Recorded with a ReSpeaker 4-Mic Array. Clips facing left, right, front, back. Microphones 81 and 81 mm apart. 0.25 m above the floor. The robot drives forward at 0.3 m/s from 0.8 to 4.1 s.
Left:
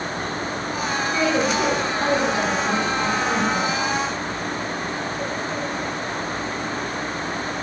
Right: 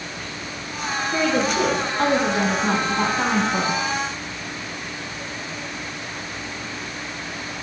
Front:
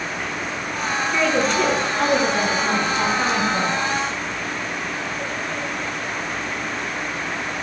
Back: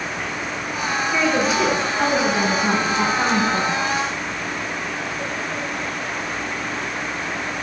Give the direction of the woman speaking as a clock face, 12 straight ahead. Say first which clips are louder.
Right 1 dB, even; 3 o'clock.